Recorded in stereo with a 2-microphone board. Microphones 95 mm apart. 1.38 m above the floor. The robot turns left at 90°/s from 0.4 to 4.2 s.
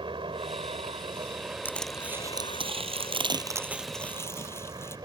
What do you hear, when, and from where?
0.0 s a helicopter: 65° right; by 5.1 s 45° right
1.6 s crushing: 20° left (ahead or behind); by 5.0 s 25° left (ahead or behind)